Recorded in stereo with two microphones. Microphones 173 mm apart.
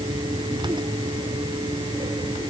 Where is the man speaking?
No man speaking in this recording.